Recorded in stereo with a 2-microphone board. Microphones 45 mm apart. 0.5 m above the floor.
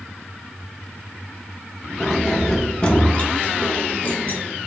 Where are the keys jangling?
5° right (ahead or behind), 0.6 m; by 4.4 s 35° left (ahead or behind), 1.0 m.